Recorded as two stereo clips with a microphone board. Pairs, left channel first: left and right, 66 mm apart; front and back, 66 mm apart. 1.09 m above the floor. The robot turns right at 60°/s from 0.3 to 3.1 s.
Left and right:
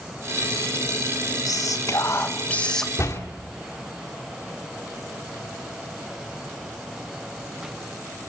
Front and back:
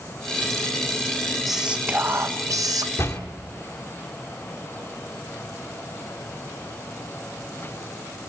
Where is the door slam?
45° left, 2 m; by 3.2 s 50° left, 2 m.